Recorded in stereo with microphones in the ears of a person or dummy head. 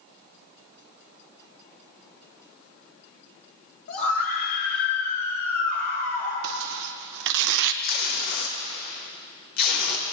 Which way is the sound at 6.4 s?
70° right (ahead or behind).